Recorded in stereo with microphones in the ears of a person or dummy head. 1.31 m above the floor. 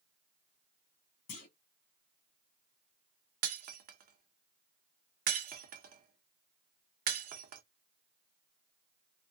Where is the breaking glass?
50° right (ahead or behind), 0.8 m.